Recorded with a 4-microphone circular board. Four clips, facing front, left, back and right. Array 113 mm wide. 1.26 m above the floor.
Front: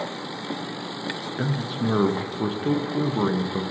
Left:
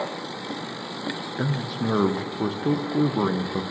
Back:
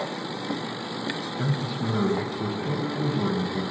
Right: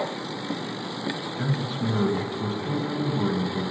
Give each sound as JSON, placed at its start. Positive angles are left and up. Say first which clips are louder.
{"t": 1.4, "sound": "a man speaking", "louder": "left 2 dB, front 3 dB", "azimuth_deg": 55, "distance_m": 0.8}